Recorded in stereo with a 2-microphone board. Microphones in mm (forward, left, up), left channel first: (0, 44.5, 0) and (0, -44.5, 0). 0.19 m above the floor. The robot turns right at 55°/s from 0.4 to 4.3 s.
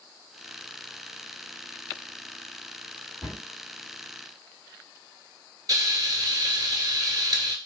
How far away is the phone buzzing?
I don't hear a phone buzzing.